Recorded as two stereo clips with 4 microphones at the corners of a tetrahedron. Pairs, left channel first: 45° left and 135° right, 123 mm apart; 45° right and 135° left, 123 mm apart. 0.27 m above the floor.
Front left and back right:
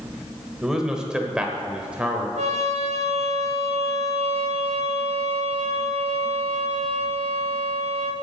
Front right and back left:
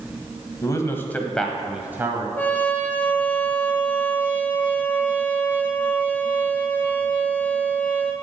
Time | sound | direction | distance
0.6 | a man speaking | 55° right | 1.3 m
2.4 | a trumpet | 120° right | 1.2 m